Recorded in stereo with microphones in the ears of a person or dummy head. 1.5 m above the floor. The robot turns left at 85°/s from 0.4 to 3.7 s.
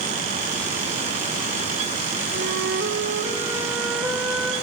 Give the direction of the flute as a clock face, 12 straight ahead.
2 o'clock.